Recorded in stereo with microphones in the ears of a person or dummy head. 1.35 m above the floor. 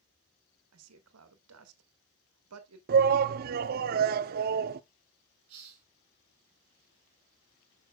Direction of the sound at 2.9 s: 50° right (ahead or behind).